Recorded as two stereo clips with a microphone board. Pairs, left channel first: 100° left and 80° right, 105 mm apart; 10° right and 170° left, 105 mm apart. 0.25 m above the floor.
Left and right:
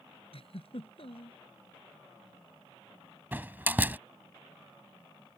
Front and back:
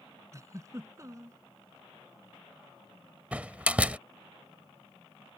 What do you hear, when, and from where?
0.3 s a giggle: 115° left
3.3 s a door slam: 125° right